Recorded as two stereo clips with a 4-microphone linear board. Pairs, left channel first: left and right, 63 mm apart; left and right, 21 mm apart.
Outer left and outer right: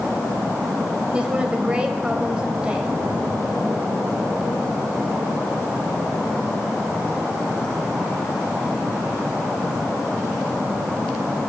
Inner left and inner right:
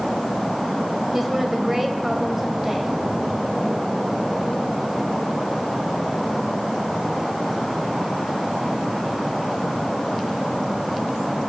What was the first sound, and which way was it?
A woman speaking, 15° right (ahead or behind).